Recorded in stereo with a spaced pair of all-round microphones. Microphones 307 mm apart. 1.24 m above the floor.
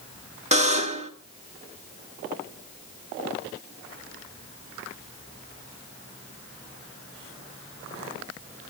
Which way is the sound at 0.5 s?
20° right (ahead or behind).